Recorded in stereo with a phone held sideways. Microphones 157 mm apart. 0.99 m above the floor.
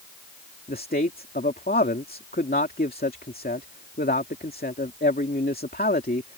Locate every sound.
0.7 s a man speaking: 75° left (ahead or behind)